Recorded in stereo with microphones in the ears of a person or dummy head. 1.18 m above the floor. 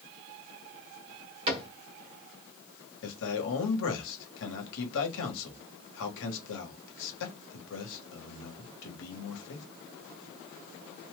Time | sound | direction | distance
1.5 | a cupboard door | 35° right (ahead or behind) | 1.1 m
3.0 | a man speaking | 70° left (ahead or behind) | 1.2 m